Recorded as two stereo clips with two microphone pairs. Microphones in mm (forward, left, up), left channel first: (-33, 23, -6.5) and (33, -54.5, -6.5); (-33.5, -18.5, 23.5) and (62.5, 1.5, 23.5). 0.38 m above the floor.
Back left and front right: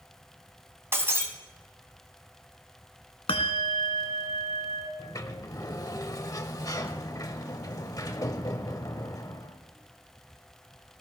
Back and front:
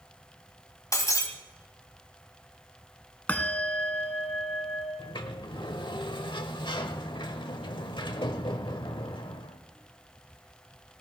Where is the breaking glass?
115° right, 1.8 m.